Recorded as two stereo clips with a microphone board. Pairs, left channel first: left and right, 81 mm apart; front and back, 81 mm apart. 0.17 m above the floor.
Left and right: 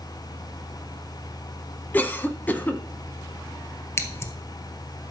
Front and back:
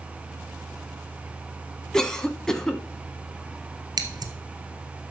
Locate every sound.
1.9 s a cough: 70° left, 1.1 m
4.0 s scissors: 145° left, 1.0 m